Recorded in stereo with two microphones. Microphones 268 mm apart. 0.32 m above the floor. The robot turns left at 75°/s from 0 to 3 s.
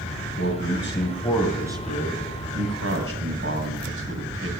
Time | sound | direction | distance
0.4 | a man speaking | 85° left | 2 m